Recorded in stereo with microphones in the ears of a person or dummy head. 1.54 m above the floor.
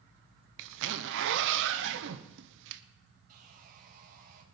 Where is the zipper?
60° right (ahead or behind), 0.9 m.